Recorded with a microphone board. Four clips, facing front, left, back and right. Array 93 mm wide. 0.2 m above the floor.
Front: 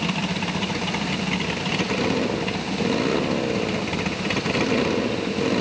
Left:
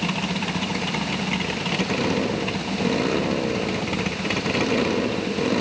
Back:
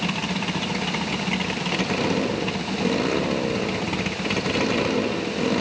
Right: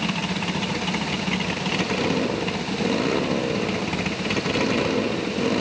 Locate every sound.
Only background noise.